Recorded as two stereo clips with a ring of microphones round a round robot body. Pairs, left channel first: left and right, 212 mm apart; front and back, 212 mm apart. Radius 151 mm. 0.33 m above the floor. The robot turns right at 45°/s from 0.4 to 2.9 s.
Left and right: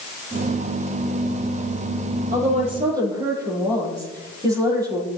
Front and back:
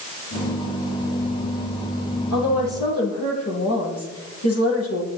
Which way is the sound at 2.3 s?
45° right.